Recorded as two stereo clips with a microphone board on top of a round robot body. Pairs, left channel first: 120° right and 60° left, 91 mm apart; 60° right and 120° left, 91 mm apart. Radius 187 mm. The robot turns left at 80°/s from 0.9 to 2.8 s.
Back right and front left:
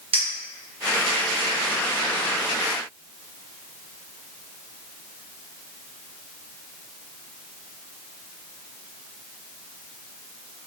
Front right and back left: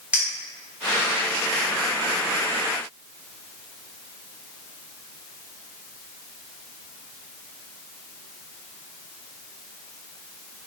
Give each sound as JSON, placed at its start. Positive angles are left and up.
{"t": 0.1, "sound": "a clink", "azimuth_deg": 40, "distance_m": 0.7}